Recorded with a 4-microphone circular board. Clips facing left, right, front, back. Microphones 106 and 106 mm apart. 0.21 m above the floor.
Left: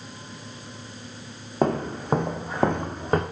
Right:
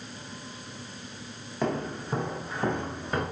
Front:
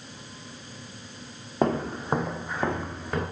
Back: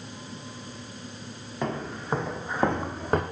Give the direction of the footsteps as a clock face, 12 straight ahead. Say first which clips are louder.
Left 6 dB, front 6 dB; 10 o'clock.